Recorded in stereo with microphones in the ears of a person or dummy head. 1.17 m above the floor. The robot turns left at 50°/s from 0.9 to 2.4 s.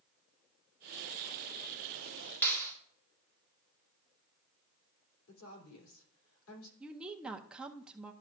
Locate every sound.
2.4 s a clap: 15° left (ahead or behind), 1.9 m
5.3 s a woman speaking: 80° left, 2.5 m
6.8 s a woman speaking: 5° right (ahead or behind), 0.6 m